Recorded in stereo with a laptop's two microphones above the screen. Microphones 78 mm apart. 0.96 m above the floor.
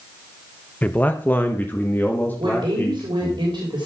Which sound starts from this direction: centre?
A man speaking, at 0.8 s.